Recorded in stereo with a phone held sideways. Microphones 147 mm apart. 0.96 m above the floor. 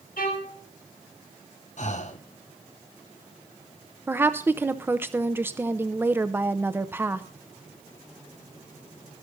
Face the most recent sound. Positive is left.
turn(degrees=-15)  # may be behind; listen again after turning